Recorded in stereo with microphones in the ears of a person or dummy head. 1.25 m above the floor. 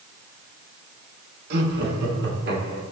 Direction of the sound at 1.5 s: 60° right (ahead or behind).